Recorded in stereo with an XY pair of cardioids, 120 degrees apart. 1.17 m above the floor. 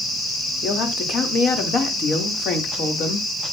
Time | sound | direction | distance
0.6 | a woman speaking | 50° left | 3 m